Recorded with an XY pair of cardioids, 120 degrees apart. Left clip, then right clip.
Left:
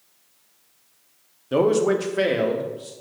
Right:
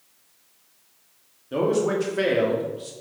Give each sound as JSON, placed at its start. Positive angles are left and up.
{"t": 1.5, "sound": "a man speaking", "azimuth_deg": 45, "distance_m": 1.0}